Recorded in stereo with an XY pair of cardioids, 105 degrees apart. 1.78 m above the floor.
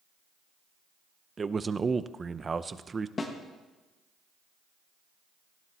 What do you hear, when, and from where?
1.4 s a man speaking: 30° right, 0.6 m
3.2 s a snare drum: 35° left, 1.5 m